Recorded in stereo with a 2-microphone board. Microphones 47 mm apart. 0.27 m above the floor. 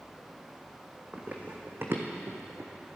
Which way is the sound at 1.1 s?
30° right (ahead or behind).